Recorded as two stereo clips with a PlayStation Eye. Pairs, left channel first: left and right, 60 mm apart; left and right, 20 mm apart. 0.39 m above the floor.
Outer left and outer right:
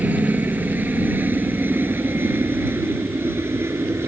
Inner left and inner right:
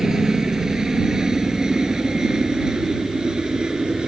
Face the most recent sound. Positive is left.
turn(degrees=-40)  # may be behind; listen again after turning